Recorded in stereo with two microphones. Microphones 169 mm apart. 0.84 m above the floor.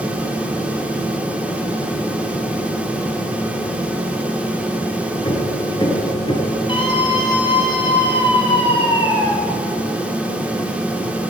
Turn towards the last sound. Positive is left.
turn(degrees=30)  # may be behind; listen again after turning